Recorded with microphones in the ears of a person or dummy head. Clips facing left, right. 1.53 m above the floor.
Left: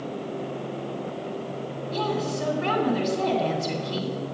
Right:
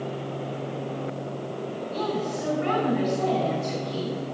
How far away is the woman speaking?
About 3 m.